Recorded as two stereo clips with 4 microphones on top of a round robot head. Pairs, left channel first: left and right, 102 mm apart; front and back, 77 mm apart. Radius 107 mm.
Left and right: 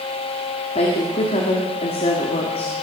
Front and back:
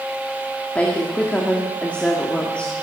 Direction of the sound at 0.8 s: 75° left.